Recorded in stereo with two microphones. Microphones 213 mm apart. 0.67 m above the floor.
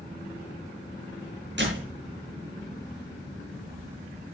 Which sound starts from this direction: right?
A door slam, at 1.6 s.